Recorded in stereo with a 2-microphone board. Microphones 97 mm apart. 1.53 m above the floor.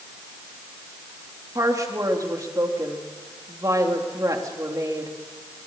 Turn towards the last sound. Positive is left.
turn(degrees=-35)  # may be behind; listen again after turning